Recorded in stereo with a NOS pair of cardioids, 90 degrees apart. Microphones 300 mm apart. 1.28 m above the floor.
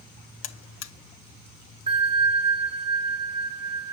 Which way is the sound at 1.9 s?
20° right.